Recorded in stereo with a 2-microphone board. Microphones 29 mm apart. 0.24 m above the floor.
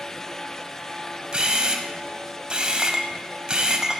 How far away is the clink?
About 0.5 m.